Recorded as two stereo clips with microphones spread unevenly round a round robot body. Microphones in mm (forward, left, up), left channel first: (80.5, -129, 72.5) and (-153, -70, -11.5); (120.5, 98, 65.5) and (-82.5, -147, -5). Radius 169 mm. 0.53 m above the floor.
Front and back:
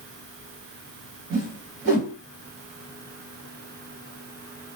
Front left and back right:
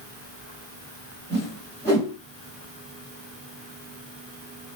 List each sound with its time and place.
1.3 s a whoosh: 140° left, 2 m